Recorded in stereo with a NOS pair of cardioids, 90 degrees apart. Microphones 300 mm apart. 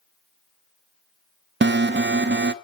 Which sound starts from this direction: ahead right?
An alarm, at 1.6 s.